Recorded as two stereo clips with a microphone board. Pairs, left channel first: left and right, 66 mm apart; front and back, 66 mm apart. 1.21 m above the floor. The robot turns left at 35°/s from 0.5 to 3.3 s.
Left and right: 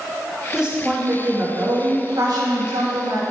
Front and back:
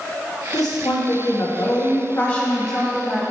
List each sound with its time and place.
0.5 s a woman speaking: 10° right, 1.5 m; by 3.2 s 105° right, 1.5 m